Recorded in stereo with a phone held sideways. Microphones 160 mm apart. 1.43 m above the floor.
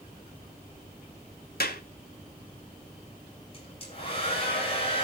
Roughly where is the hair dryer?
Left.